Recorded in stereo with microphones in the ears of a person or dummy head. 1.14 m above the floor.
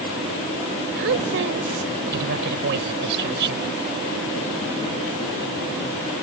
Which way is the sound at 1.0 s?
65° right (ahead or behind).